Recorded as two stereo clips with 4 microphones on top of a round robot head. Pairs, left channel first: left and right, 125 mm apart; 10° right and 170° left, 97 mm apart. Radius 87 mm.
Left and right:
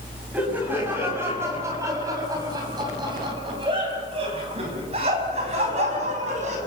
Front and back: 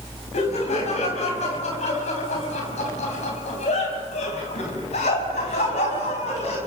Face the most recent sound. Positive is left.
turn(degrees=-45)